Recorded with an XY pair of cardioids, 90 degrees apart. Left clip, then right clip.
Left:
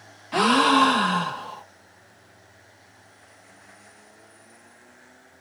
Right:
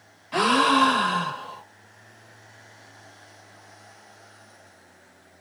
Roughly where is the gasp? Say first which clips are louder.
Left 1 dB; ahead.